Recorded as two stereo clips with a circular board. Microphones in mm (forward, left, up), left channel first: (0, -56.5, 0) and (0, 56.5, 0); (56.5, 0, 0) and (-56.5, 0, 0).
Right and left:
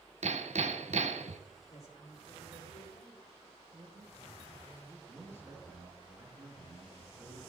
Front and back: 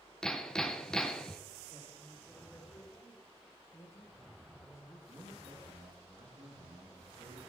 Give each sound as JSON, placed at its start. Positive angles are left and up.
{"t": 0.2, "sound": "hammering", "azimuth_deg": 85, "distance_m": 0.8}
{"t": 1.7, "sound": "a man speaking", "azimuth_deg": -70, "distance_m": 3.0}
{"t": 3.7, "sound": "a man speaking", "azimuth_deg": 50, "distance_m": 2.0}
{"t": 5.1, "sound": "a man speaking", "azimuth_deg": 160, "distance_m": 3.5}